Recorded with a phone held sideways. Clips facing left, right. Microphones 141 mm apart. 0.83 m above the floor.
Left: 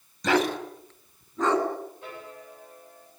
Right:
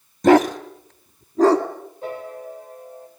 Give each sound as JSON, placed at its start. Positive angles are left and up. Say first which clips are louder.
{"t": 0.2, "sound": "a dog barking", "louder": "right 10 dB", "side_deg": -50, "distance_m": 1.5}
{"t": 2.0, "sound": "a piano", "louder": "right 10 dB", "side_deg": -40, "distance_m": 4.0}